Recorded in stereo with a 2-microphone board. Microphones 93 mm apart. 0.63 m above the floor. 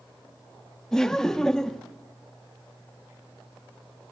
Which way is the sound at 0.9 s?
5° left (ahead or behind).